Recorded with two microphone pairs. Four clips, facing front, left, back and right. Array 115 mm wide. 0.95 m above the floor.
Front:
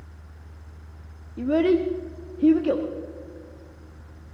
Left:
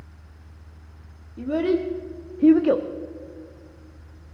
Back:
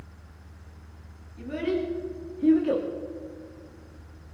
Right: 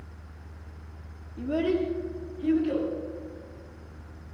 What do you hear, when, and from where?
1.4 s a child speaking: 5° left, 1.3 m; by 2.9 s 90° left, 1.1 m